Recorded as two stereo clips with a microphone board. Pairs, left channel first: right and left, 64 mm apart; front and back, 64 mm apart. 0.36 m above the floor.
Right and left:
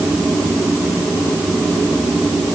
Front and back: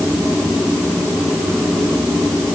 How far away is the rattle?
No rattle in this recording.